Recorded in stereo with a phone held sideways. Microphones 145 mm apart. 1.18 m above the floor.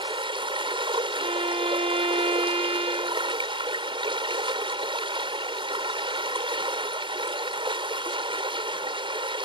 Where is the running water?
35° right (ahead or behind).